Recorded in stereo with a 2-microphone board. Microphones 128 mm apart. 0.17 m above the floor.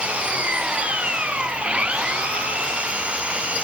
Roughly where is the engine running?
Centre.